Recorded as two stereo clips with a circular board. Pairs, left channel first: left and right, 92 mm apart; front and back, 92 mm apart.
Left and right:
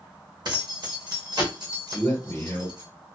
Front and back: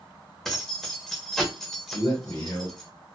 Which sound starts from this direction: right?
Keys jangling, at 0.5 s.